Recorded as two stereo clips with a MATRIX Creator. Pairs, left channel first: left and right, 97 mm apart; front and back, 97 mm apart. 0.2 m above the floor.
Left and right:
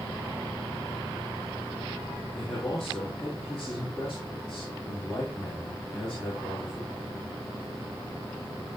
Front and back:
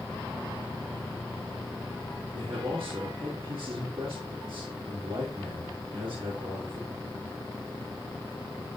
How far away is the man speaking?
About 5 m.